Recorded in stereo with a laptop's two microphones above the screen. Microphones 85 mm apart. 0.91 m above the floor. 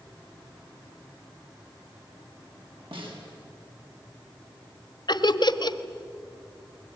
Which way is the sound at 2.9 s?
70° right (ahead or behind).